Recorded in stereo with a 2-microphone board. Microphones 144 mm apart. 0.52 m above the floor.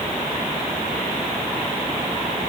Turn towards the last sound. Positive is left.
No sound to turn to.